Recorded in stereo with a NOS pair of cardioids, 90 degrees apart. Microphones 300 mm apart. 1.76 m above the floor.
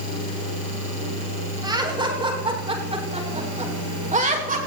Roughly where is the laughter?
Ahead.